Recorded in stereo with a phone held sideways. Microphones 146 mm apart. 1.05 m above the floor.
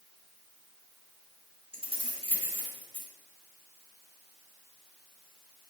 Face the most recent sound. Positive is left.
turn(degrees=-40)  # may be behind; listen again after turning